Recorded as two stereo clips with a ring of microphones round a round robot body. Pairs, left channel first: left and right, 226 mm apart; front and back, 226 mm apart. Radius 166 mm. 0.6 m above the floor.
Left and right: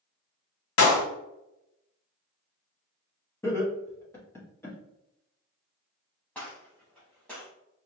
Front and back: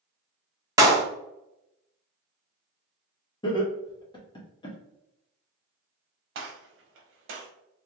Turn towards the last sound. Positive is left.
turn(degrees=175)